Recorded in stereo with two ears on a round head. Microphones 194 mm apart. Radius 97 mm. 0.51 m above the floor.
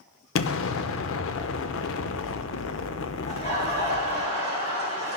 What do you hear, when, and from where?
0.3 s an explosion: 65° left (ahead or behind), 0.6 m
3.3 s laughter: 30° left (ahead or behind), 4 m